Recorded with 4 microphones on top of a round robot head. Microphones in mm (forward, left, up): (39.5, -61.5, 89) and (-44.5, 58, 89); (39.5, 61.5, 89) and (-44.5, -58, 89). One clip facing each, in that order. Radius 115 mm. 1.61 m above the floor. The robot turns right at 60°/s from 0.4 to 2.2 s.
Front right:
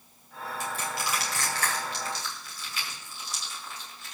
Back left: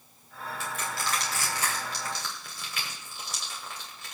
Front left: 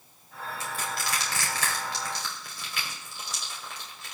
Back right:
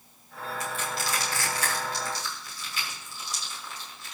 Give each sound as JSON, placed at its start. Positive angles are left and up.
{"t": 0.6, "sound": "crushing", "azimuth_deg": -5, "distance_m": 2.5}